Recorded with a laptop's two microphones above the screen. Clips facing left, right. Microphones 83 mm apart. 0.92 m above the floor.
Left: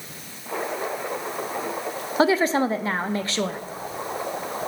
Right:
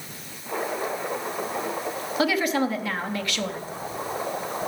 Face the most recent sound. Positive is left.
turn(degrees=30)  # may be behind; listen again after turning